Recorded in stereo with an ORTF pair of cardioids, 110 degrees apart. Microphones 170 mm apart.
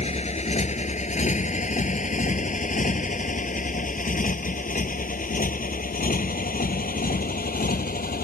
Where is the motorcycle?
40° left; by 8.2 s 60° left.